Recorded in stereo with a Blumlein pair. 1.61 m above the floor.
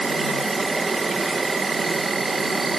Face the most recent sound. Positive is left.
turn(degrees=-10)